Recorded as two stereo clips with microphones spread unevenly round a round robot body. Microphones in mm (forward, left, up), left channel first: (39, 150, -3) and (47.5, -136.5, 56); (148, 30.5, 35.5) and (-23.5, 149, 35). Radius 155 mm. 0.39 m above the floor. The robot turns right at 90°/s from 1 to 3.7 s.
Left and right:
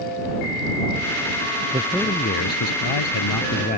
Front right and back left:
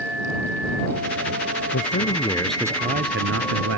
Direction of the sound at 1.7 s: 20° right.